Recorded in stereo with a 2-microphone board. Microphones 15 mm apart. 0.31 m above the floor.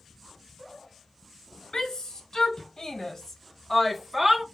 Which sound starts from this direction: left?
A shout, at 1.7 s.